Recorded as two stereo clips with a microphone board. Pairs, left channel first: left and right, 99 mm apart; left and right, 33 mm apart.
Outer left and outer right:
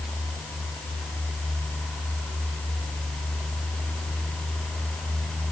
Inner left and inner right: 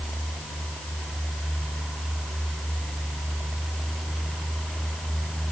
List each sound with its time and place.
Only background noise.